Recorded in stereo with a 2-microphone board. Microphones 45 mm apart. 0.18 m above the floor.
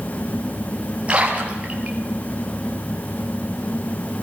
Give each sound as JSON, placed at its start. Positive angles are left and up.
{"t": 1.1, "sound": "a splash", "side_deg": -25, "distance_m": 4.0}